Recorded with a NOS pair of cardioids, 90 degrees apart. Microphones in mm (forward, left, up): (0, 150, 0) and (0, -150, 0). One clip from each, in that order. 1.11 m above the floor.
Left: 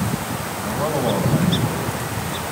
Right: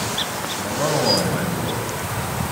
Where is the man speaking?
10° right, 6.5 m.